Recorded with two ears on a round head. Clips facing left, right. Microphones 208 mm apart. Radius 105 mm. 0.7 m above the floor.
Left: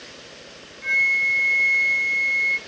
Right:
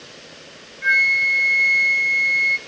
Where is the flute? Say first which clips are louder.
Right 5 dB; 20° right (ahead or behind), 0.8 m.